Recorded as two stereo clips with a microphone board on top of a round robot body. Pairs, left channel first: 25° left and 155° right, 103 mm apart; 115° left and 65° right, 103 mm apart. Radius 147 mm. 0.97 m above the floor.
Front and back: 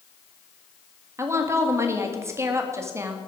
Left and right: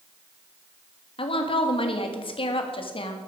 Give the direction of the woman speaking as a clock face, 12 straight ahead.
7 o'clock.